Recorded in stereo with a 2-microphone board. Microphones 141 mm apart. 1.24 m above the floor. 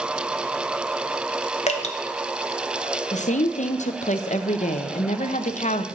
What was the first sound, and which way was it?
Dripping, 50° left (ahead or behind).